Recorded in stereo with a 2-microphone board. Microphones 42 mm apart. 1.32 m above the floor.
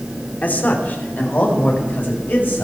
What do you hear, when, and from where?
0.4 s a man speaking: 45° left (ahead or behind), 3 m